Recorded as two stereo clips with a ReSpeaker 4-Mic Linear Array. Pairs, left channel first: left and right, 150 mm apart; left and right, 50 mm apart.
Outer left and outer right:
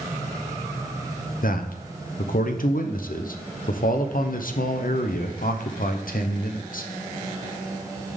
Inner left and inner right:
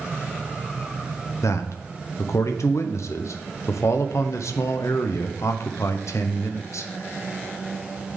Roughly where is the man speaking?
Left.